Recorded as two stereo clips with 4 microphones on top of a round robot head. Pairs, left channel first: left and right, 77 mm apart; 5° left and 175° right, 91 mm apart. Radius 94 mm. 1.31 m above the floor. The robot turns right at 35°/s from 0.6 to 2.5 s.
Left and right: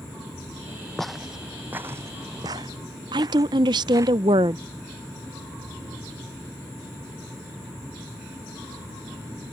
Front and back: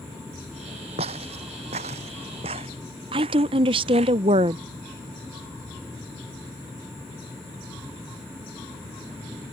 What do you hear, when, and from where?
1.0 s footsteps: 175° left; by 4.1 s 150° right
3.1 s a woman speaking: 135° right